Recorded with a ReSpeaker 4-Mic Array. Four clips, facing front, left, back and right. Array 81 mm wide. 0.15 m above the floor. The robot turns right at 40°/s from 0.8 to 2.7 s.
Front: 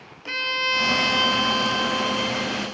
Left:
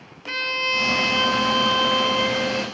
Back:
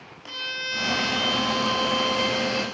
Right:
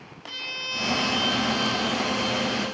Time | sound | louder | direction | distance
0.3 | a violin | left 11 dB, front 7 dB | 45° left | 0.9 m